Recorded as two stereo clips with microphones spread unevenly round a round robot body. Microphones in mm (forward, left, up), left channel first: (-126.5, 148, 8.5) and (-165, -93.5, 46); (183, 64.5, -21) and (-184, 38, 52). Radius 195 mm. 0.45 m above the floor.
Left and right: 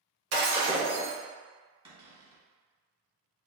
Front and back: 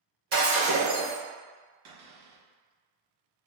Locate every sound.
0.3 s breaking glass: 105° right, 1.1 m
1.9 s a cupboard door: 170° right, 1.2 m